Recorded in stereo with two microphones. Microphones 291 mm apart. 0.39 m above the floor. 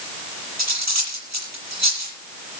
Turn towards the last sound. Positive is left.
turn(degrees=-65)  # may be behind; listen again after turning